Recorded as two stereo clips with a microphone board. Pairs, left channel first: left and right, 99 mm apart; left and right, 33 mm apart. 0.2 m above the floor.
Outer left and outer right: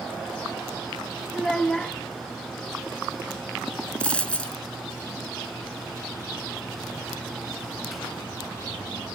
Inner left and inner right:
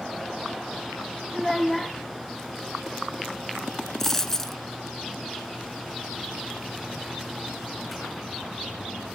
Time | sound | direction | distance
1.3 | a child speaking | 5° left (ahead or behind) | 0.9 m
4.0 | a dropped coin | 15° left (ahead or behind) | 0.7 m